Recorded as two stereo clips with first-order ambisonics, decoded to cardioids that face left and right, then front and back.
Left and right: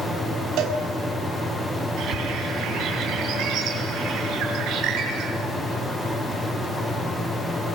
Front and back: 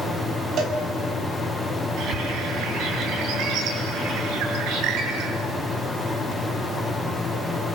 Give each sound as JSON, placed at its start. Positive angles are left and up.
{"t": 0.6, "sound": "a cowbell", "azimuth_deg": -125, "distance_m": 4.5}
{"t": 2.0, "sound": "a bird", "azimuth_deg": -140, "distance_m": 8.0}